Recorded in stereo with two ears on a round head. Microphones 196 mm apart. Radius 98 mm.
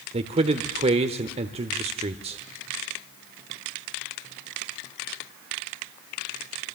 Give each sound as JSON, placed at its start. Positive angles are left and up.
{"t": 0.1, "sound": "a man speaking", "side_deg": -30, "distance_m": 1.2}